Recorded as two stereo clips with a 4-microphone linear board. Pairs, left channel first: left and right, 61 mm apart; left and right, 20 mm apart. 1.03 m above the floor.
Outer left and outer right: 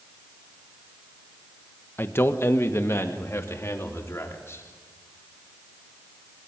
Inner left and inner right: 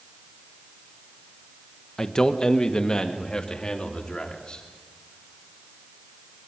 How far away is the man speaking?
About 1.1 m.